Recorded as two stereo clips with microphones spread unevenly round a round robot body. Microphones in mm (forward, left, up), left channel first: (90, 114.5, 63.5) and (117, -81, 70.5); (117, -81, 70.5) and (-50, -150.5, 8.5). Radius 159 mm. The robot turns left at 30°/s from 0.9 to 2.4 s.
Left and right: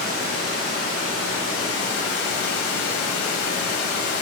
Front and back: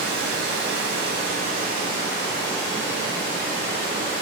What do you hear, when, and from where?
0.0 s running water: 150° left, 0.9 m; by 4.2 s 105° left, 0.9 m